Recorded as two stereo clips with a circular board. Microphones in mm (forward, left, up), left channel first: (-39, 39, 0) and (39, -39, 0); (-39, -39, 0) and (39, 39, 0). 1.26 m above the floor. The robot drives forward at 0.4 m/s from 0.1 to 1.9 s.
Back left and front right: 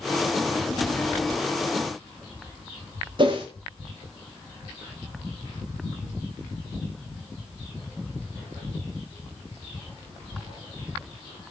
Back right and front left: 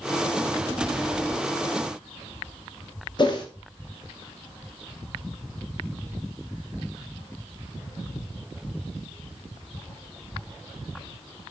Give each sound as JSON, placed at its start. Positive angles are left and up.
{"t": 3.2, "sound": "a whoosh", "azimuth_deg": -90, "distance_m": 0.8}